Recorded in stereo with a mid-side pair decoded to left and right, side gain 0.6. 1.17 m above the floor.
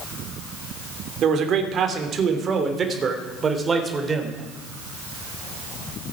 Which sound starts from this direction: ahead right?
A man speaking, at 1.2 s.